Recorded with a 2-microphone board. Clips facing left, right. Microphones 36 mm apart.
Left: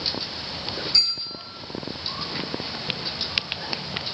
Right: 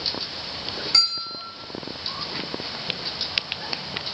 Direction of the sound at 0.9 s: 75° right (ahead or behind).